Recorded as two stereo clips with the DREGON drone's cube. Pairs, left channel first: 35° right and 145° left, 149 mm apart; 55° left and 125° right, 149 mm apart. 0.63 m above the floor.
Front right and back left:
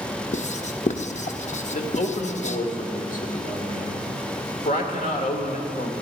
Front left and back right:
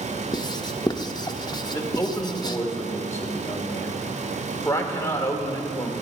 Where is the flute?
No flute in this recording.